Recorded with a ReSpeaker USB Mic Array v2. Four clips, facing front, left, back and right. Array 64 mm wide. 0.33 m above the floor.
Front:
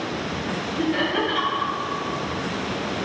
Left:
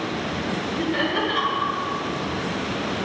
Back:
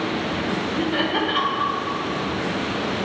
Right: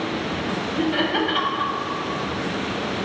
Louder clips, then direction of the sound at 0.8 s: Right 2 dB, front 2 dB; 110° right.